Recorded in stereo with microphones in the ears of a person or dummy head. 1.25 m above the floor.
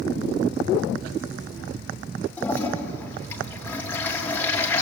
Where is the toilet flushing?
5° left (ahead or behind), 3 m.